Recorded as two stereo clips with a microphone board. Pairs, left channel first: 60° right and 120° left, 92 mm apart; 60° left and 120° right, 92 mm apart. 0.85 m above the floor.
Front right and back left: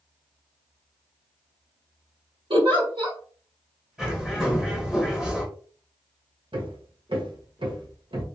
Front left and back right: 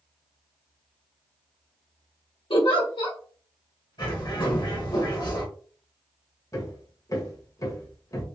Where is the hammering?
110° left, 1.0 m.